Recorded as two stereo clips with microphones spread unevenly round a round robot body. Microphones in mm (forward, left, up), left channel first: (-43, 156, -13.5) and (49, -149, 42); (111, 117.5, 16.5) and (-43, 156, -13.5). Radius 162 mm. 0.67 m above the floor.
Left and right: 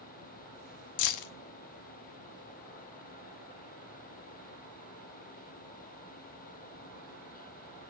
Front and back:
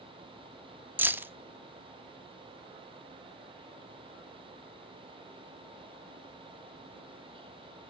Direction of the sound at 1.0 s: 90° left.